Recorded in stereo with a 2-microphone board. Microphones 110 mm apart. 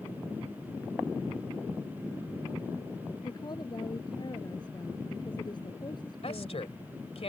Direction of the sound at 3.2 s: 40° left (ahead or behind).